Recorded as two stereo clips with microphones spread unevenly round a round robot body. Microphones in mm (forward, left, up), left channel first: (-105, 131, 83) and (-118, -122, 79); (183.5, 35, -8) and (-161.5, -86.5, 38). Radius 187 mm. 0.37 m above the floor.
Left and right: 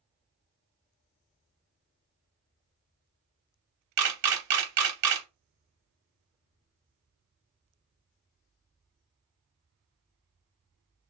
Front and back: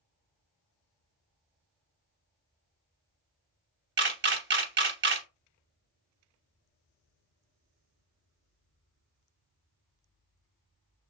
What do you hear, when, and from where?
4.0 s a camera shutter: 95° right, 0.7 m